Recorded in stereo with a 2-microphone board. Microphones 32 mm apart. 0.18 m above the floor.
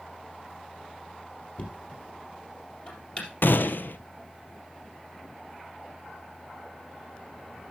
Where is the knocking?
35° left (ahead or behind), 4 m.